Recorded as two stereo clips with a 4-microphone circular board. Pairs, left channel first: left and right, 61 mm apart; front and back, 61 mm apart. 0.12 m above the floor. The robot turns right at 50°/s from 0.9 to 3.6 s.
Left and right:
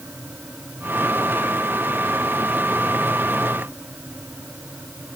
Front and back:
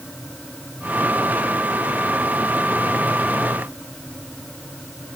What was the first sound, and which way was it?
Only background noise.